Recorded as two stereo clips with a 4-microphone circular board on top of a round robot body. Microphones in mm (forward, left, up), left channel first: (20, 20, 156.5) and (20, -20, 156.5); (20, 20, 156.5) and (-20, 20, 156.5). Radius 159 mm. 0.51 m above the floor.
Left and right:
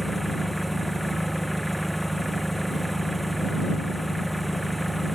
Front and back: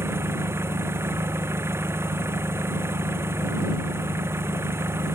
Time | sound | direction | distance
0.0 | an engine running | straight behind | ?